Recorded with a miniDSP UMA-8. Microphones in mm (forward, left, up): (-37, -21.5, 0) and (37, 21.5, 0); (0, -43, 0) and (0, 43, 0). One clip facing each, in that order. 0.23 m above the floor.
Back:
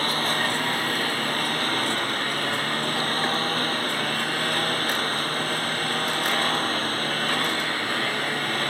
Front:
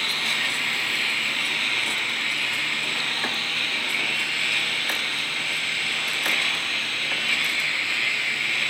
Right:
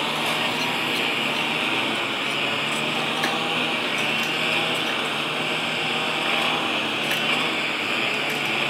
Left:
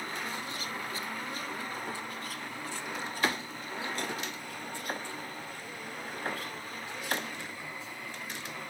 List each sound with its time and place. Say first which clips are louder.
0.0 s a lawn mower: back 5 dB, right 12 dB; 100° right